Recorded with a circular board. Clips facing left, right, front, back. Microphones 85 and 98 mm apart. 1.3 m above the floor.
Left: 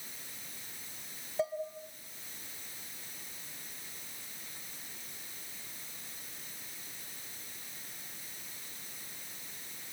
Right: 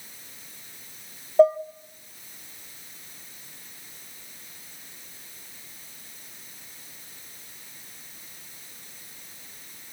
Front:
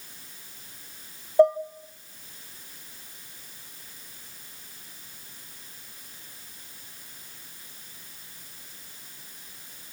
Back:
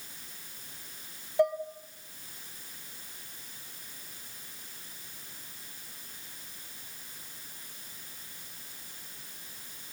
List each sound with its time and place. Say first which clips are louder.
1.4 s dishes clattering: right 17 dB, front 8 dB; 55° right, 0.9 m